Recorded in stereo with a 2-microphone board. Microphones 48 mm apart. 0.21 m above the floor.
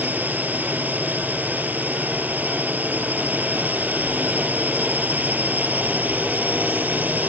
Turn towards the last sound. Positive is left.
turn(degrees=-35)  # may be behind; listen again after turning